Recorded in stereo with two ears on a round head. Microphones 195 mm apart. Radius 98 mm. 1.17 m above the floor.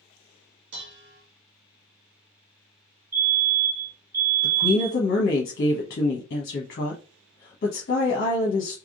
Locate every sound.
0.7 s dishes clattering: 60° right (ahead or behind), 1.0 m
3.1 s a fire alarm: 10° right (ahead or behind), 1.6 m
4.4 s a woman speaking: 45° left (ahead or behind), 1.1 m